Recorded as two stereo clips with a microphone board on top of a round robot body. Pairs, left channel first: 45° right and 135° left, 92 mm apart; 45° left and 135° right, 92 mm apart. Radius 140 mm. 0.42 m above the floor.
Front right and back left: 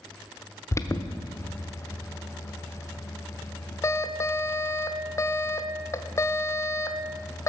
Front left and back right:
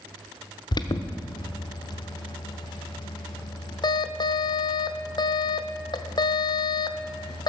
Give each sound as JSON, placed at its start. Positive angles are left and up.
{"t": 0.7, "sound": "an alarm", "azimuth_deg": 10, "distance_m": 0.9}